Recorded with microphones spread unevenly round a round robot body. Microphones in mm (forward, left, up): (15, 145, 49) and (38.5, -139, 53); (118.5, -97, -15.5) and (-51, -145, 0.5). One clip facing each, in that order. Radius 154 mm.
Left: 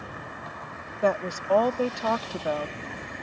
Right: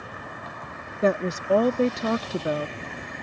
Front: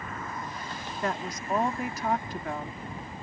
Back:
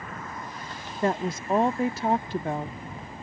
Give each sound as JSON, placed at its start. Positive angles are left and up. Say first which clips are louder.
{"t": 1.0, "sound": "a woman speaking", "louder": "right 3 dB, back 6 dB", "azimuth_deg": -125}